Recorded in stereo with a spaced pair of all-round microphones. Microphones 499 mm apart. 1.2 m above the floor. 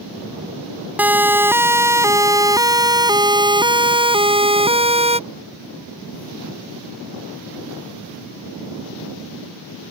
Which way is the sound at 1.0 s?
5° right (ahead or behind).